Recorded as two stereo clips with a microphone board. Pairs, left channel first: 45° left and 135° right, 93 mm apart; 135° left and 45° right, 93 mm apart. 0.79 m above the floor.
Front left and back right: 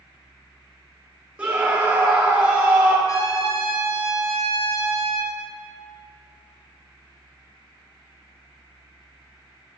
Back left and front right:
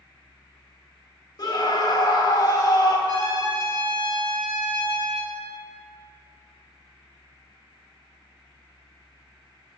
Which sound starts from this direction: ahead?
A trumpet, at 3.1 s.